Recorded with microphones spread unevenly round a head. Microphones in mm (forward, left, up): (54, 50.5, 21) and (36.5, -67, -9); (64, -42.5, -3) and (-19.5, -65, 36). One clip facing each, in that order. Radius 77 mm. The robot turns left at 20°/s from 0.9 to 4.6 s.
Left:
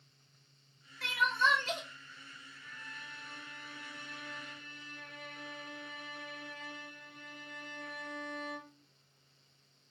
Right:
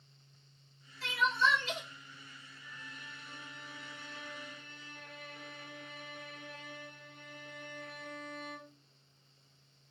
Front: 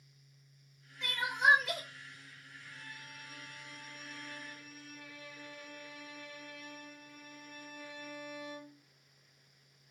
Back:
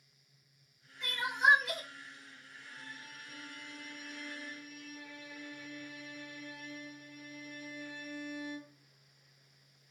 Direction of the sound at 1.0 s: 45° left.